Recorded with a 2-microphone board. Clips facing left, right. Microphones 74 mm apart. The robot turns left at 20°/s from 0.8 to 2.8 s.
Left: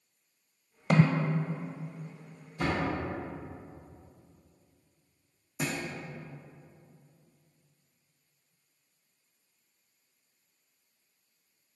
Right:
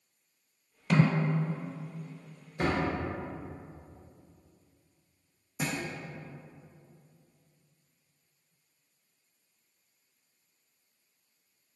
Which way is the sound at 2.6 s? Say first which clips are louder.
Right 1 dB; 70° right (ahead or behind).